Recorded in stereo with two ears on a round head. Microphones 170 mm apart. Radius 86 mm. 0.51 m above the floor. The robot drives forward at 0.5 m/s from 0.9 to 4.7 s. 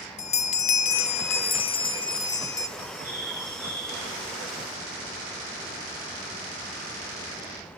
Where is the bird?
20° left (ahead or behind), 9.5 m.